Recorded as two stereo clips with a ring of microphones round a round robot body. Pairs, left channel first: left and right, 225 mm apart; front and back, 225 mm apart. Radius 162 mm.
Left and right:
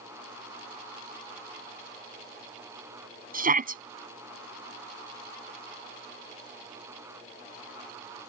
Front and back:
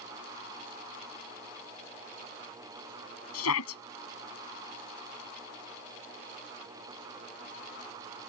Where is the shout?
40° right.